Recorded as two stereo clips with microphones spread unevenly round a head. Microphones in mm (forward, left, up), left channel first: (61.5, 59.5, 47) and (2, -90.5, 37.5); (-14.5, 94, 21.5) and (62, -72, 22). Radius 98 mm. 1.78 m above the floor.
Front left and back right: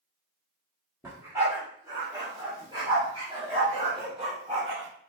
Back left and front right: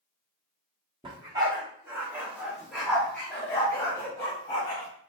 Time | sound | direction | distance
1.0 | a dog barking | 45° right | 1.4 m